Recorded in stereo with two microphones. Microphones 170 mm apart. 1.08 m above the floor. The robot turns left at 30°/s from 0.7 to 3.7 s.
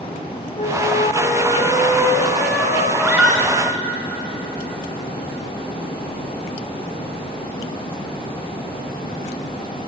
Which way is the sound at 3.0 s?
15° right (ahead or behind).